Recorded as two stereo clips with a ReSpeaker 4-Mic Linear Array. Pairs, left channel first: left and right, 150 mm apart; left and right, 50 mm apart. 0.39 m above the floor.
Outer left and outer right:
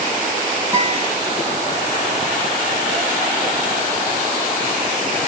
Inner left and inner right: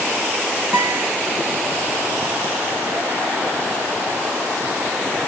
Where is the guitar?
20° right (ahead or behind), 1.5 m.